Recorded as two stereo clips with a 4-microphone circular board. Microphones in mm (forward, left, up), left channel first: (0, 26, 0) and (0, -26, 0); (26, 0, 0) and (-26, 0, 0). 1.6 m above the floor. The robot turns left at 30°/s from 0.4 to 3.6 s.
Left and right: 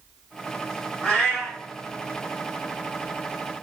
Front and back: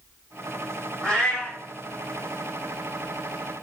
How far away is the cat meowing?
About 1.2 m.